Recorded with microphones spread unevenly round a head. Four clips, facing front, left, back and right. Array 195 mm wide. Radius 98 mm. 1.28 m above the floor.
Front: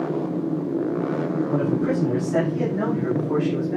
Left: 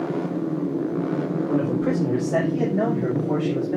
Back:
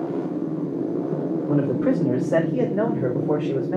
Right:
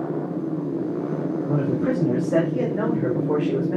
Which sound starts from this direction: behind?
A man speaking, at 1.5 s.